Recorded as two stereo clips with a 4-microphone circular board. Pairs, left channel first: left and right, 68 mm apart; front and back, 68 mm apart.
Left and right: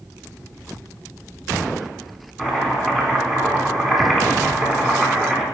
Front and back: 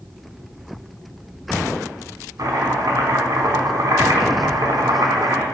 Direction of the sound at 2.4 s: 175° left.